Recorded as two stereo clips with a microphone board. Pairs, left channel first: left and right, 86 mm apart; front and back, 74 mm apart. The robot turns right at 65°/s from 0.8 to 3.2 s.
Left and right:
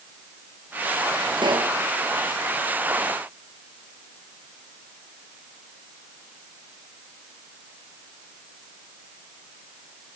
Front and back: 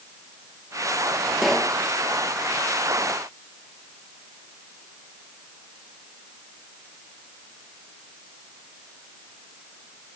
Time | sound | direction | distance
1.4 | a pop | 100° right | 2.5 m